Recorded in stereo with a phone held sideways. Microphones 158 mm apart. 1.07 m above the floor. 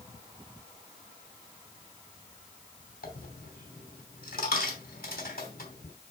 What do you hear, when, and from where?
3.0 s a dropped coin: 70° left (ahead or behind), 3 m